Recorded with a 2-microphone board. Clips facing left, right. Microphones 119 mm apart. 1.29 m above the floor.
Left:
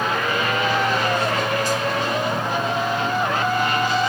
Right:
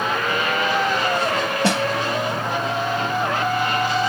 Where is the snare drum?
65° right (ahead or behind).